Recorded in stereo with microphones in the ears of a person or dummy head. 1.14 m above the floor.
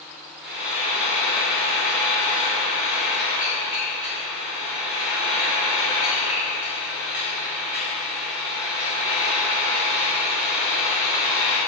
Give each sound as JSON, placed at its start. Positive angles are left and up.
{"t": 0.4, "sound": "frying", "side_deg": -10, "distance_m": 1.0}